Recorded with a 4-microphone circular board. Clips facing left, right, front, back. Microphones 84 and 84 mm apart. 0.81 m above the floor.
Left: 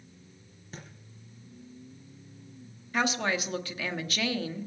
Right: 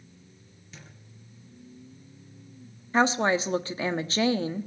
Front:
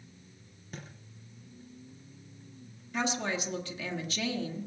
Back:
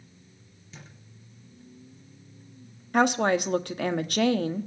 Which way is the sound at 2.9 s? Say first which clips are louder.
Right 6 dB, back 10 dB; 150° right.